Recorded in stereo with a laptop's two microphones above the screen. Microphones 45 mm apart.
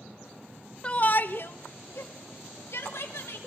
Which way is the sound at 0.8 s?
25° left (ahead or behind).